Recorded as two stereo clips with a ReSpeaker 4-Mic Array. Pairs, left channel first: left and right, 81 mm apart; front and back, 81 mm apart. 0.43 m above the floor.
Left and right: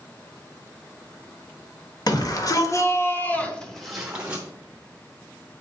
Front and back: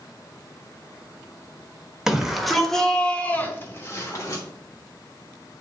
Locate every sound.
2.1 s a shout: 100° left, 1.4 m; by 4.4 s 25° right, 1.2 m